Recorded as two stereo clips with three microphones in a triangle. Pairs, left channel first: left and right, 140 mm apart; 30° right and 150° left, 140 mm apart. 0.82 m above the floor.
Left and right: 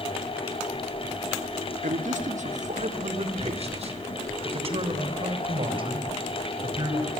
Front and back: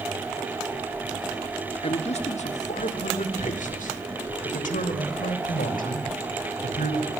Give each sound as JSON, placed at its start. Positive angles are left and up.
{"t": 1.8, "sound": "a man speaking", "azimuth_deg": -70, "distance_m": 2.0}